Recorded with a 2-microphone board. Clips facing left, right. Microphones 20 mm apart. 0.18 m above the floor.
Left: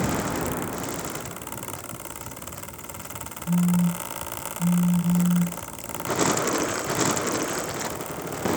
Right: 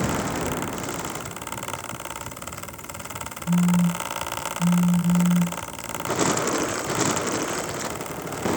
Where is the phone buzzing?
65° right (ahead or behind), 1.8 m.